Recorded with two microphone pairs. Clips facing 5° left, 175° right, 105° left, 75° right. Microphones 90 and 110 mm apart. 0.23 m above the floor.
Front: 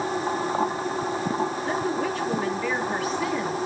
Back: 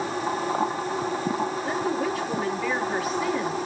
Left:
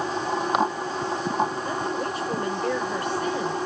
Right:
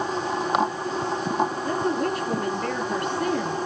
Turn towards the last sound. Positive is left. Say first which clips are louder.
# even, right 3 dB
turn(degrees=-90)